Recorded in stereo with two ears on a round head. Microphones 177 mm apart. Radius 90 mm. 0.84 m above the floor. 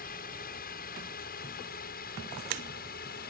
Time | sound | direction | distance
0.0 | a drone | 50° left (ahead or behind) | ?